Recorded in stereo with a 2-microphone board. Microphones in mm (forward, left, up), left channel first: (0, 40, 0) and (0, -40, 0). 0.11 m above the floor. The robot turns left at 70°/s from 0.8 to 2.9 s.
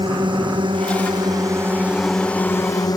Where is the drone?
75° right (ahead or behind); by 3.0 s 50° left (ahead or behind).